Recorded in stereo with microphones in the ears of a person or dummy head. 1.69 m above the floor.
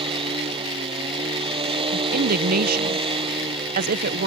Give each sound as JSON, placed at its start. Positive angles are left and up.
{"t": 0.0, "sound": "a machine running", "side_deg": -20}
{"t": 1.9, "sound": "a woman speaking", "side_deg": -45}